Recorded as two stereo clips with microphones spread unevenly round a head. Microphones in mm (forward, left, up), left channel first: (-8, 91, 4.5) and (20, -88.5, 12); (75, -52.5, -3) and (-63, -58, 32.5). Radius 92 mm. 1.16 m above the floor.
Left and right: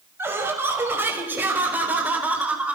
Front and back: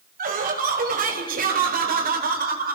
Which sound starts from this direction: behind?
Laughter, at 0.2 s.